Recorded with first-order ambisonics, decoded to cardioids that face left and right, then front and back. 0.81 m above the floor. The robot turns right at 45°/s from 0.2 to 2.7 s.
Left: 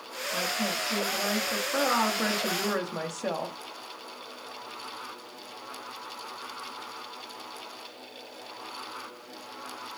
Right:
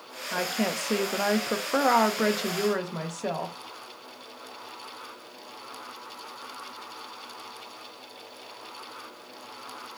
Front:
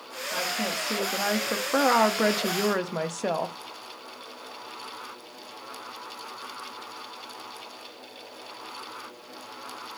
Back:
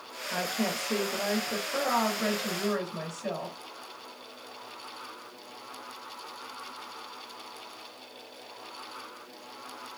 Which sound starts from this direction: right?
A woman speaking, at 0.3 s.